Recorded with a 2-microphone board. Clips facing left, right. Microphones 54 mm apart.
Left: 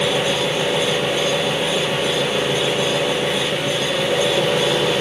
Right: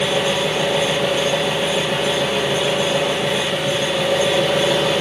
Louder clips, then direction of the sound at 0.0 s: Even; 5° left (ahead or behind).